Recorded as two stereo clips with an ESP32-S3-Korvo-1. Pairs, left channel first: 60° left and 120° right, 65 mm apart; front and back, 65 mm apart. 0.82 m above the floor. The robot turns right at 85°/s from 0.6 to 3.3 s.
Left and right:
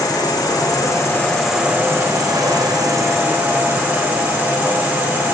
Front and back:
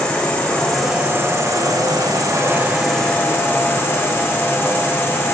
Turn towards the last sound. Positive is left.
turn(degrees=-55)